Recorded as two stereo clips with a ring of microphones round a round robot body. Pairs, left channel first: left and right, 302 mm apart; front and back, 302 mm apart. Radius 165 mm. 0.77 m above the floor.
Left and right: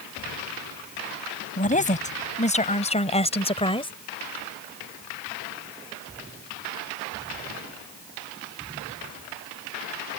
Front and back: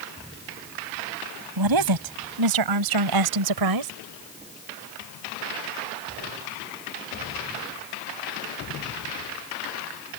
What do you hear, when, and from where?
1.6 s a woman speaking: 155° left; by 3.9 s 165° left